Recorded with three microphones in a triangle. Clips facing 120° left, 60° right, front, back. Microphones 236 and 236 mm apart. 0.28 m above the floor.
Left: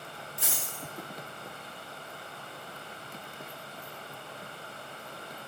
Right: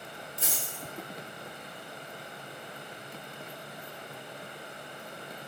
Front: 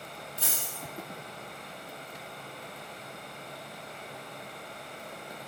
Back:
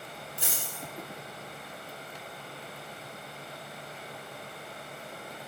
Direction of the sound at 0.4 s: 105° right.